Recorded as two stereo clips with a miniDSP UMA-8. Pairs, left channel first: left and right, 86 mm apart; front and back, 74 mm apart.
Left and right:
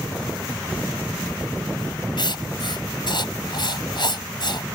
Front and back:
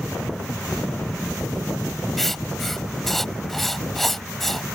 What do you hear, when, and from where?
2.2 s writing: 90° left